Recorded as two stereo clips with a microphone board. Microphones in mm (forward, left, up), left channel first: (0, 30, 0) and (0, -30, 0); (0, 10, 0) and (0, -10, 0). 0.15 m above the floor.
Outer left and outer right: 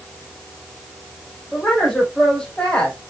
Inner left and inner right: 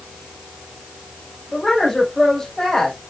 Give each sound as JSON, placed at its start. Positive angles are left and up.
{"t": 1.5, "sound": "a woman speaking", "side_deg": 10, "distance_m": 5.0}